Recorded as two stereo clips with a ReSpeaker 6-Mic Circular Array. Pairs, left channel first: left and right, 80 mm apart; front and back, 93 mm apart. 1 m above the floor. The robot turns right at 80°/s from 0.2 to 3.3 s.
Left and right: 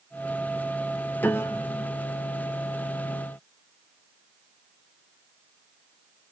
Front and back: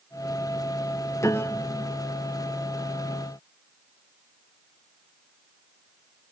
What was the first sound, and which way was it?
A piano, 35° left.